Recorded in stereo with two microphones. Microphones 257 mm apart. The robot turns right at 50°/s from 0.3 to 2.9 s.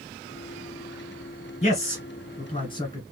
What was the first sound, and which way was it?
A man speaking, 25° left (ahead or behind).